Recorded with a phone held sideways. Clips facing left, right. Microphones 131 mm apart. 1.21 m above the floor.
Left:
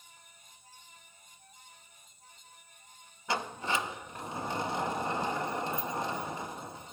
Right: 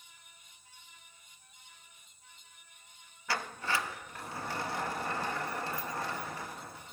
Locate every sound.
0.0 s a fan: 45° left (ahead or behind), 5 m
3.3 s a sliding door: 20° left (ahead or behind), 0.5 m